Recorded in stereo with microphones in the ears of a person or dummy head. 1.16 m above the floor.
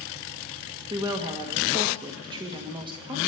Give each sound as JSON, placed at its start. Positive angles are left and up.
{"t": 0.9, "sound": "a woman speaking", "side_deg": -25, "distance_m": 1.4}